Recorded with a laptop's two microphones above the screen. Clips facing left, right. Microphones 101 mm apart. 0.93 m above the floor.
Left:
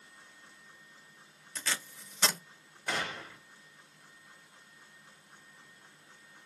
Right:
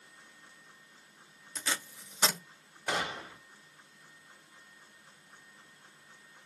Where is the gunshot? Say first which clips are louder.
Right 2 dB; 20° right (ahead or behind), 0.9 m.